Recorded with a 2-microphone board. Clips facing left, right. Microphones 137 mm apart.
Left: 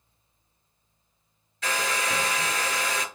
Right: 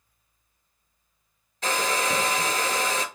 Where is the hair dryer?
40° right (ahead or behind), 0.5 m.